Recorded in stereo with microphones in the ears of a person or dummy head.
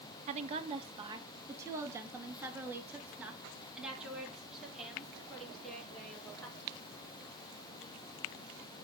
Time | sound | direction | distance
0.3 | a woman speaking | 35° right (ahead or behind) | 1.6 m